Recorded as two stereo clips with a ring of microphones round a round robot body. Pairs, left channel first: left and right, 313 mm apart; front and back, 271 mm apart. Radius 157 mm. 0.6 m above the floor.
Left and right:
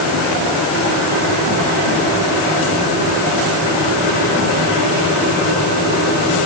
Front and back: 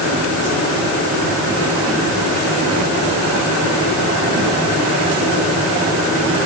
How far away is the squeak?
I don't hear a squeak.